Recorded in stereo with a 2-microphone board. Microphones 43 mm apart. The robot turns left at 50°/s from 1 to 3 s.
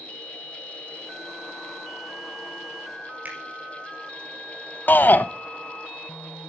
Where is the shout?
45° left (ahead or behind), 0.9 m.